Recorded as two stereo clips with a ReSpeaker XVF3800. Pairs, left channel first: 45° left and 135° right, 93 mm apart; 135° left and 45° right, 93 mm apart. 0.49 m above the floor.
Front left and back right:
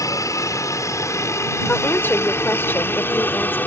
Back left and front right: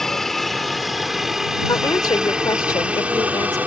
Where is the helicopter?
50° left; by 3.7 s 5° left.